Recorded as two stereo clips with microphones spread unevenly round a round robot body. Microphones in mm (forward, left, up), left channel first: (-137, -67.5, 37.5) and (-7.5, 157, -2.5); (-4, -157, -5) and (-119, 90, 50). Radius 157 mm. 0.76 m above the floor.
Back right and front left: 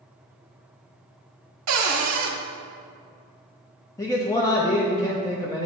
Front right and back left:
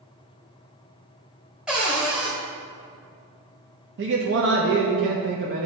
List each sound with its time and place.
1.7 s a cupboard door: 35° left, 0.6 m
4.0 s a man speaking: 160° left, 0.8 m